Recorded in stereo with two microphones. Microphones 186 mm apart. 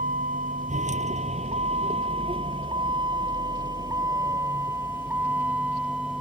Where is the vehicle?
45° right (ahead or behind); by 6.2 s 5° right (ahead or behind).